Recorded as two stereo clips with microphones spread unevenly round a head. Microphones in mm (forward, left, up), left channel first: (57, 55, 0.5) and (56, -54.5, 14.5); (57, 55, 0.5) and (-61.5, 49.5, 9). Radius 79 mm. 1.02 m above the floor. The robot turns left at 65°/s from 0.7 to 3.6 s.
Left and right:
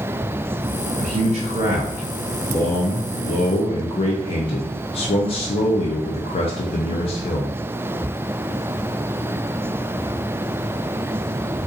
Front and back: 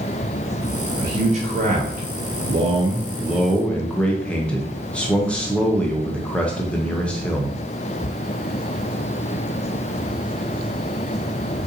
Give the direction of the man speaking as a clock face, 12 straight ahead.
4 o'clock.